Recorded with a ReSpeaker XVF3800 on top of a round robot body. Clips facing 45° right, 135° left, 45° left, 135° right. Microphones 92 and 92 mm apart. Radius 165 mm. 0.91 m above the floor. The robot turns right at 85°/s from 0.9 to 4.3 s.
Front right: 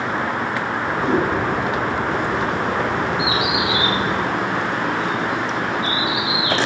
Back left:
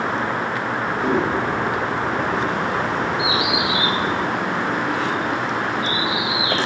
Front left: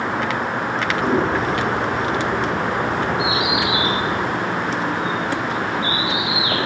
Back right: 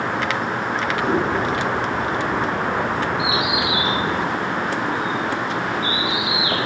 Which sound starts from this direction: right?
A bird, at 3.2 s.